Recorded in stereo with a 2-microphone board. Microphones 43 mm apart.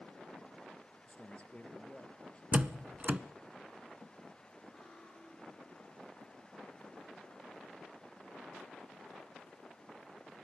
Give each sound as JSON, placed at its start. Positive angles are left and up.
{"t": 1.1, "sound": "a man speaking", "side_deg": 30, "distance_m": 3.0}
{"t": 2.5, "sound": "a door slam", "side_deg": -30, "distance_m": 0.8}
{"t": 4.7, "sound": "cutlery clinking", "side_deg": -10, "distance_m": 8.5}